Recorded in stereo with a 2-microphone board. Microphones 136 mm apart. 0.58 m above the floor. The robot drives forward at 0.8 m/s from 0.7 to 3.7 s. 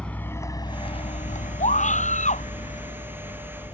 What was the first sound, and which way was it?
A vehicle, 10° left (ahead or behind).